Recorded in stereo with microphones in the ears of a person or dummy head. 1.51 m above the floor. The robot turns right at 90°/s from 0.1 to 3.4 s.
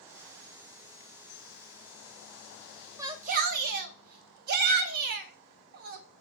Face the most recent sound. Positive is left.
turn(degrees=-55)  # may be behind; listen again after turning